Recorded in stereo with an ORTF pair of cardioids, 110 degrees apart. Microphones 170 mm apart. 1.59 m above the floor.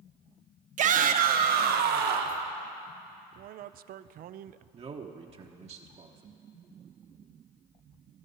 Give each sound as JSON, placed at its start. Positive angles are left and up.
{"t": 0.8, "sound": "a shout", "azimuth_deg": -45, "distance_m": 1.0}
{"t": 3.4, "sound": "a man speaking", "azimuth_deg": -60, "distance_m": 0.5}
{"t": 4.7, "sound": "a man speaking", "azimuth_deg": -40, "distance_m": 1.1}